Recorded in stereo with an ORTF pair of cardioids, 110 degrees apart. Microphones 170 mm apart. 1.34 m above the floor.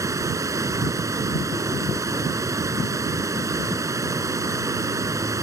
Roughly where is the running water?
Ahead.